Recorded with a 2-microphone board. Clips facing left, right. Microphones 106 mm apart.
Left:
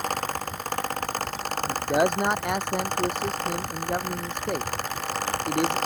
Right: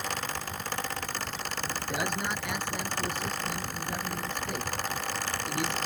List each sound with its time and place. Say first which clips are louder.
1.7 s a man speaking: left 11 dB; 60° left (ahead or behind)